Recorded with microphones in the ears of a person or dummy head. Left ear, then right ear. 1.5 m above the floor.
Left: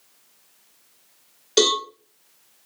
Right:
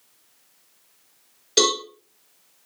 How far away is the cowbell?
About 1.8 m.